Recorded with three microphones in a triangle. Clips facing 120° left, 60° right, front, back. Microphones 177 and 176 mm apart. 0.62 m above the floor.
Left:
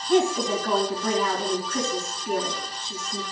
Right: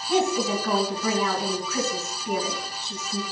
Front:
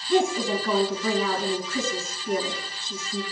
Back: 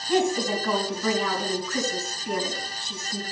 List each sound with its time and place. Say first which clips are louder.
0.1 s a woman speaking: left 2 dB, front 1 dB; 145° right, 4.5 m